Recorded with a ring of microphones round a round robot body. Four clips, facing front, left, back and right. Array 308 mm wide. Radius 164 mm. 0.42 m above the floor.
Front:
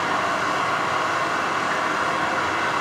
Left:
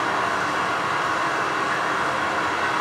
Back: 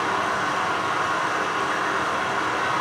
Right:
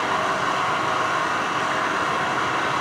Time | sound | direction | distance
0.0 | running water | 65° right | 4 m